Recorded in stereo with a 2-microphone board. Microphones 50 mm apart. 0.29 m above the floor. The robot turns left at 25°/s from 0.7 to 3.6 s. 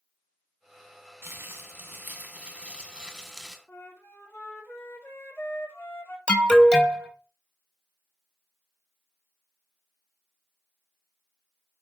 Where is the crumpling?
120° right, 0.6 m; by 3.6 s straight behind, 0.6 m.